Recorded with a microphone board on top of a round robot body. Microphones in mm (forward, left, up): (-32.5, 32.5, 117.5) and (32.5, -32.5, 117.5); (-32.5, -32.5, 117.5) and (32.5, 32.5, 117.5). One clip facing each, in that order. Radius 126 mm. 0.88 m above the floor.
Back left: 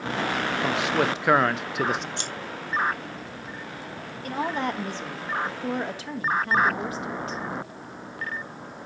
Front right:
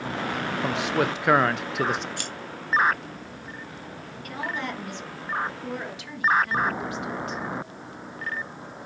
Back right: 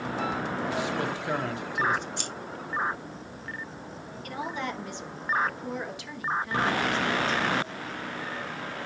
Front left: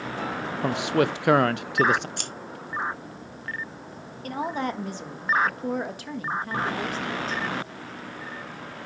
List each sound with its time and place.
0.6 s a man speaking: 45° left, 0.5 m
2.2 s scissors: 70° left, 1.6 m
4.2 s a woman speaking: 85° left, 1.3 m